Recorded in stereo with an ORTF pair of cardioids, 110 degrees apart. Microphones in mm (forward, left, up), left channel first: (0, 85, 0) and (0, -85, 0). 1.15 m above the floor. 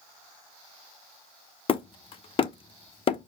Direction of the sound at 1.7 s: 35° left.